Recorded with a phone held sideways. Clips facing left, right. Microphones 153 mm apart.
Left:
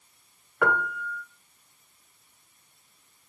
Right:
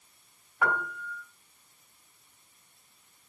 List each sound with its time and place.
0.6 s a piano: 70° left (ahead or behind), 1.5 m